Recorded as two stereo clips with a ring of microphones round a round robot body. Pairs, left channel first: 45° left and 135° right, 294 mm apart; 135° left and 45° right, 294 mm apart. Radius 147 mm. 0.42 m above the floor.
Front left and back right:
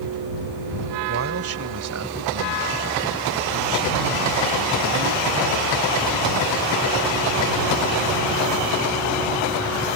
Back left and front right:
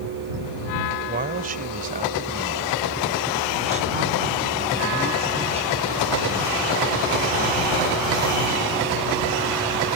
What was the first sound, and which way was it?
A man speaking, 100° right.